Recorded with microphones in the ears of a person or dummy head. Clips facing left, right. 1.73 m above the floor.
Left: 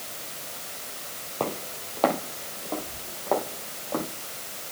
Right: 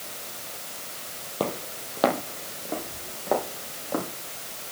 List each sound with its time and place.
1.4 s footsteps: 10° right (ahead or behind), 3.5 m